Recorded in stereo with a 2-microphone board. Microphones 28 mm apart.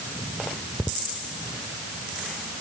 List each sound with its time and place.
Only background noise.